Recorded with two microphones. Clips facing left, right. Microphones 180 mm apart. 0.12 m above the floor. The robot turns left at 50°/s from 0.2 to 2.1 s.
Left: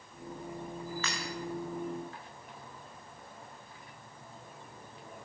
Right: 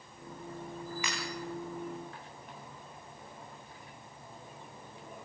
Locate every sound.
1.0 s breaking glass: 15° right (ahead or behind), 8 m; by 1.2 s 20° right (ahead or behind), 8 m